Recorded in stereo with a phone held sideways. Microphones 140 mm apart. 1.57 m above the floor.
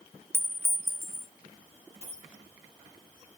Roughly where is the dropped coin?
Right.